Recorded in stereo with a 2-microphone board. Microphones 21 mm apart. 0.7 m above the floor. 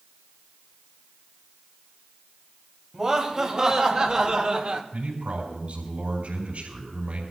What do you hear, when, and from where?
2.9 s laughter: 25° right (ahead or behind), 3.5 m; by 4.8 s 50° right (ahead or behind), 1.4 m
4.9 s a man speaking: 80° right, 5.5 m